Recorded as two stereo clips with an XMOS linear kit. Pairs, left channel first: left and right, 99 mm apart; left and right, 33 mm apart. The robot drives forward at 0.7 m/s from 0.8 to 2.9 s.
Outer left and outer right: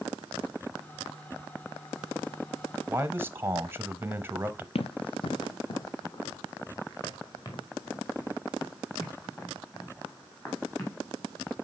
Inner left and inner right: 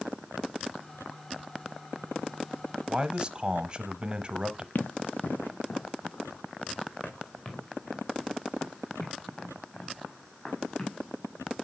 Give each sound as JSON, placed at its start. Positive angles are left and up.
{"t": 2.9, "sound": "a man speaking", "side_deg": -20, "distance_m": 1.0}
{"t": 4.8, "sound": "running footsteps", "side_deg": 70, "distance_m": 0.6}